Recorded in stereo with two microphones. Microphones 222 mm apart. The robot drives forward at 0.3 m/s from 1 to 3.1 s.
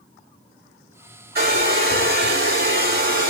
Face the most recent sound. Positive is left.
turn(degrees=-45)  # may be behind; listen again after turning